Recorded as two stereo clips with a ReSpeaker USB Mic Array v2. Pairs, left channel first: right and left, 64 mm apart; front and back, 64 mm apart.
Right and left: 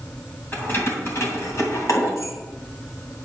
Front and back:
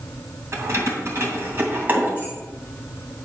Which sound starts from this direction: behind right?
Keys jangling, at 0.5 s.